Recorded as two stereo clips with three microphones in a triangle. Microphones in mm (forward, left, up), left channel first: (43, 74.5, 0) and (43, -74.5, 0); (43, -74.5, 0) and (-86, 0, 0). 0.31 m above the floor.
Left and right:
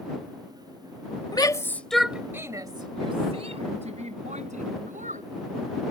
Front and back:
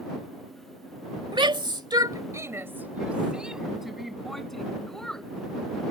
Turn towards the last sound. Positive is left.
turn(degrees=-115)